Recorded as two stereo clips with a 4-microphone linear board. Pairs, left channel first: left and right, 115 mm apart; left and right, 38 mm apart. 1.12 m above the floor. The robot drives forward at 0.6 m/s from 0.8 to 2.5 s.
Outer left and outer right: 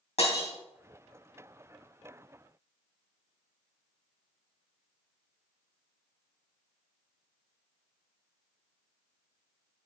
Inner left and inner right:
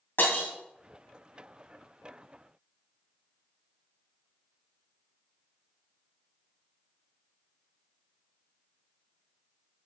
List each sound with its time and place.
0.2 s breaking glass: 65° left (ahead or behind), 2.5 m